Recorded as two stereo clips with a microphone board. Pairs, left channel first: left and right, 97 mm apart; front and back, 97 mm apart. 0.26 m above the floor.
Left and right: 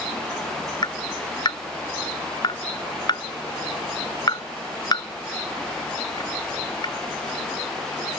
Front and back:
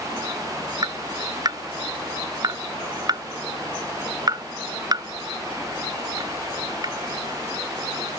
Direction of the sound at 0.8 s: 135° left.